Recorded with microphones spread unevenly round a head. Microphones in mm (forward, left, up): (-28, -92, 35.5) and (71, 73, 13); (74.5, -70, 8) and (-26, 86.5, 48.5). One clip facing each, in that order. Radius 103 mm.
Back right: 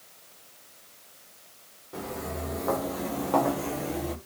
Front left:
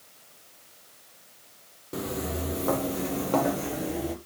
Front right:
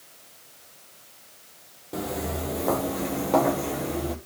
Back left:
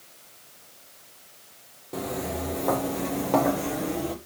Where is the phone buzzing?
No phone buzzing in this recording.